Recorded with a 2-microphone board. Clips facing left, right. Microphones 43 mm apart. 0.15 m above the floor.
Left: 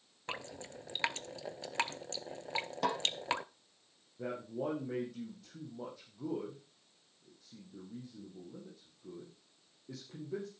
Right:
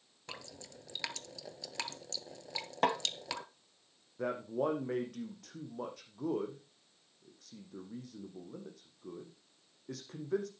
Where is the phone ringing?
I don't hear a phone ringing.